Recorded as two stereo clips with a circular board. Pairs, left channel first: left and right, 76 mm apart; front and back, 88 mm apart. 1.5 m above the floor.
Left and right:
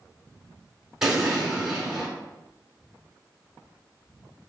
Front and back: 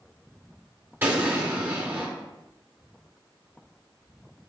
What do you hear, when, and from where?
1.0 s an explosion: 160° right, 1.2 m